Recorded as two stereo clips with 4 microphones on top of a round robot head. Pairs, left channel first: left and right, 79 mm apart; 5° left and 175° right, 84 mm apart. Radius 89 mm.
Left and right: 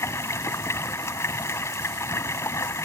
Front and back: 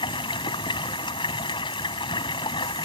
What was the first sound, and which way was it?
Running water, 30° left.